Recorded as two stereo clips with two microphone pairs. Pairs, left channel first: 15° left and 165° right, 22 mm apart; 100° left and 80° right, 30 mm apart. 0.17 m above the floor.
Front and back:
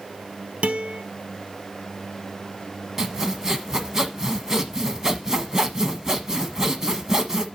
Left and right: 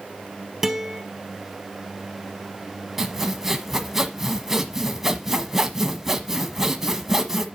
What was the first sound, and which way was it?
A guitar, 160° right.